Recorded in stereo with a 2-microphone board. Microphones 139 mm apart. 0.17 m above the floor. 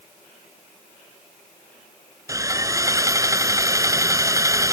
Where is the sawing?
25° right (ahead or behind).